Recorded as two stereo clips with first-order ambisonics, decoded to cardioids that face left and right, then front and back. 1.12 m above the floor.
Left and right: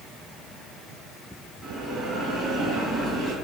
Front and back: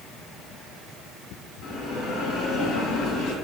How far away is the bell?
About 1.8 m.